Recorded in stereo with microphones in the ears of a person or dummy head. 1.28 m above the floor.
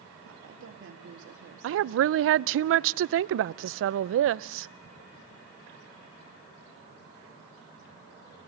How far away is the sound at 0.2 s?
About 2.5 m.